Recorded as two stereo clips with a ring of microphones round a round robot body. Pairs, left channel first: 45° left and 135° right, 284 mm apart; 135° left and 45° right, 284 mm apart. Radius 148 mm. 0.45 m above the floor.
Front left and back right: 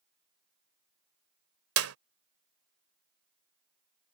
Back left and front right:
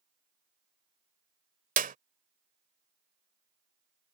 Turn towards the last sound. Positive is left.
turn(degrees=-105)